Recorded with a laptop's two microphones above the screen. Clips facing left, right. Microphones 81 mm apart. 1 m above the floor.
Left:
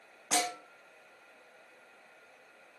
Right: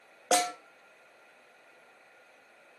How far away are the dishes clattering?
I don't hear dishes clattering.